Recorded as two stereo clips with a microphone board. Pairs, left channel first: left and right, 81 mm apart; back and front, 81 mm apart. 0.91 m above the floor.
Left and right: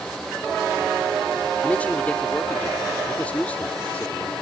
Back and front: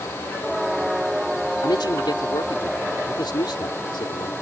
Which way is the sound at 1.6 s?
160° left.